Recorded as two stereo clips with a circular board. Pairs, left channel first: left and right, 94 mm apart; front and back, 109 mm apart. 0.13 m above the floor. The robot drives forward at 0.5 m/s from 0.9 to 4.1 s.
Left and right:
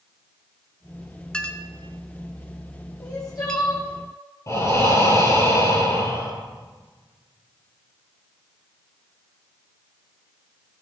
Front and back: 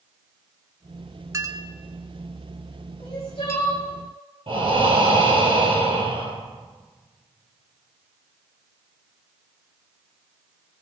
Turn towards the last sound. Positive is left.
turn(degrees=145)